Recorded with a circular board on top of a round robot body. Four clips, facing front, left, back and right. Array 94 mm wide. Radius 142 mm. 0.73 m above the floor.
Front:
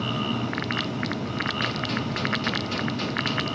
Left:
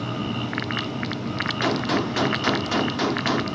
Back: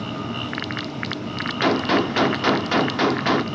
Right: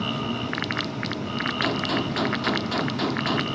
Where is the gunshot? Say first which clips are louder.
Left 4 dB, back 9 dB; 175° left.